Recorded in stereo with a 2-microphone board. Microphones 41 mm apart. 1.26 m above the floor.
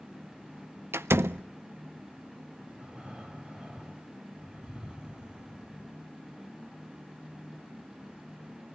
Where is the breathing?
20° right (ahead or behind), 3.5 m.